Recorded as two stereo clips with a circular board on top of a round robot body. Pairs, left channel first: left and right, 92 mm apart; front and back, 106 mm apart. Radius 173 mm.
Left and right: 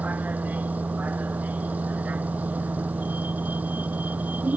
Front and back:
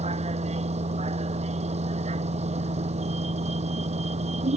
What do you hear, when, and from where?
0.0 s a vehicle: 165° right